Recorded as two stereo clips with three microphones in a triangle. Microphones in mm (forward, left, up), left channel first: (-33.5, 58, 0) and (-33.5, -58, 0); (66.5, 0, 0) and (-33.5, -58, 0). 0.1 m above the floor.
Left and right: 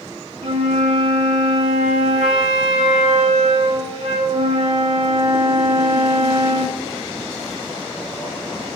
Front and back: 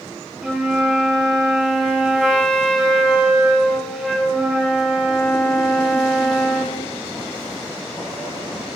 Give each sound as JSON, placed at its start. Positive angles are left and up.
{"t": 0.4, "sound": "a flute", "azimuth_deg": -65, "distance_m": 3.0}